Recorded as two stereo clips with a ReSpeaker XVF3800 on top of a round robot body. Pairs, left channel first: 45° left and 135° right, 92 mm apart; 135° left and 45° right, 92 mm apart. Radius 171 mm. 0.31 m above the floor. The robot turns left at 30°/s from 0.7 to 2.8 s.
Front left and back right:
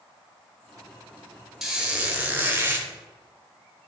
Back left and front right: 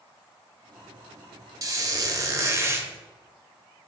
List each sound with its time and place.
1.6 s a squeak: 55° right, 1.0 m; by 2.9 s 90° right, 1.0 m